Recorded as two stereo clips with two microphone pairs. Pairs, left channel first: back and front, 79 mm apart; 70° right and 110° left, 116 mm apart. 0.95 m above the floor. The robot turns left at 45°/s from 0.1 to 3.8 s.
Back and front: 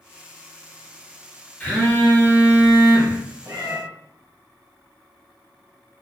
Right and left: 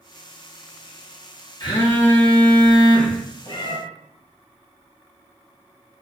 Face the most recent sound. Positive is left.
turn(degrees=-45)